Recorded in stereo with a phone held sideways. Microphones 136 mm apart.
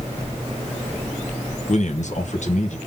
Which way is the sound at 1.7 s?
65° left (ahead or behind).